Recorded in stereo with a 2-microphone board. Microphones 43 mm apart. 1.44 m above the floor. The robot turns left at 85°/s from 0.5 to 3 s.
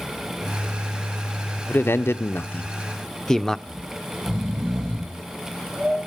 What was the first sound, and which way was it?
A man speaking, 120° left.